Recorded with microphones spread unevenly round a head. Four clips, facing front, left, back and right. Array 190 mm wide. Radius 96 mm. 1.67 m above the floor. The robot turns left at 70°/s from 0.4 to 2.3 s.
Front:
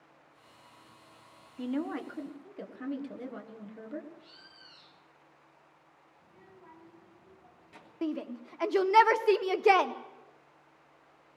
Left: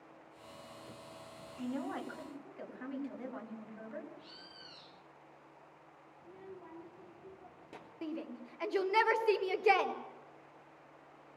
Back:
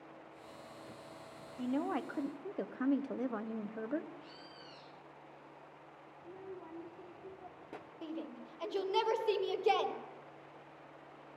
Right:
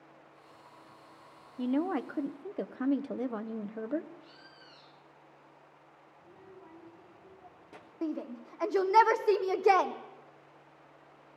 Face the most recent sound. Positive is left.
turn(degrees=-30)